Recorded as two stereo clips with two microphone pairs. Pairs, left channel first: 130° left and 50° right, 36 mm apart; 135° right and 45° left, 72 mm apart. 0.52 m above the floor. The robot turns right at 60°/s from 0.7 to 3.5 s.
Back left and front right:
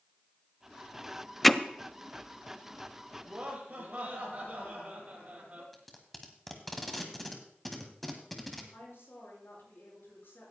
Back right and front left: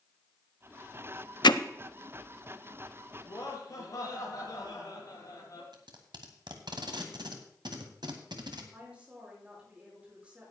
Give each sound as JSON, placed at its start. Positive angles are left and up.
{"t": 1.4, "sound": "hammering", "azimuth_deg": -145, "distance_m": 0.5}
{"t": 3.2, "sound": "laughter", "azimuth_deg": -115, "distance_m": 6.5}
{"t": 5.7, "sound": "tape being pulled", "azimuth_deg": 40, "distance_m": 1.5}
{"t": 8.7, "sound": "a woman speaking", "azimuth_deg": 115, "distance_m": 7.0}